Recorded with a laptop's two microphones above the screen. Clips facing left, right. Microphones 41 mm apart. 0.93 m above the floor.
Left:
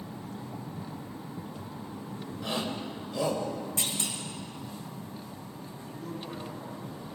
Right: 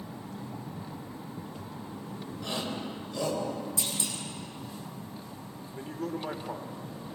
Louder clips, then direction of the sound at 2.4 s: Left 1 dB; 10° left (ahead or behind).